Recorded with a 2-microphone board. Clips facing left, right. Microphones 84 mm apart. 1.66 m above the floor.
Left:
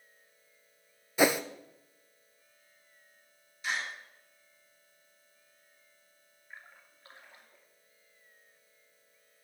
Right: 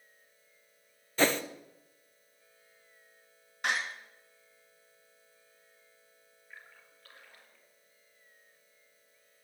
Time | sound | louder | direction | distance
1.2 | a whoosh | left 2 dB | 10° left (ahead or behind) | 0.6 m
3.6 | a door slam | right 3 dB | 65° right (ahead or behind) | 2 m
6.5 | a splash | left 2 dB | 25° left (ahead or behind) | 2 m